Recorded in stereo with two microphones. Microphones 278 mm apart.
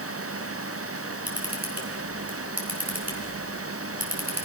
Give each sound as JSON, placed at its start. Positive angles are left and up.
{"t": 1.3, "sound": "a camera shutter", "side_deg": -75, "distance_m": 4.0}